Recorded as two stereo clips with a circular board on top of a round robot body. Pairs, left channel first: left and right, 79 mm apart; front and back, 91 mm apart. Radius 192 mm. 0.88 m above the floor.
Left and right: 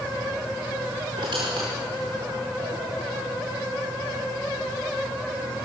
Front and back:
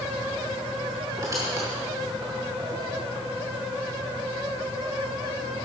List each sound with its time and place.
1.2 s a squeak: 125° right, 0.5 m